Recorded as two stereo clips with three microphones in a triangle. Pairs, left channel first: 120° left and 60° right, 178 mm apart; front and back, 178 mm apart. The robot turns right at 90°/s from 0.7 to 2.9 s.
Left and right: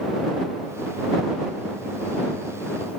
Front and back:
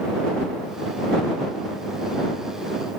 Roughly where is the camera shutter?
I don't hear a camera shutter.